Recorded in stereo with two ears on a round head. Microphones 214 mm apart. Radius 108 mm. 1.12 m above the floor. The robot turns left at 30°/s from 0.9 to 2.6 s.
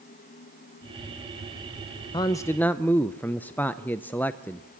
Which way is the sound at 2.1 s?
20° left (ahead or behind).